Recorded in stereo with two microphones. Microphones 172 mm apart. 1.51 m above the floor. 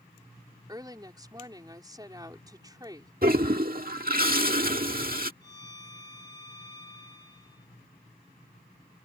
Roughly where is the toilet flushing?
Right.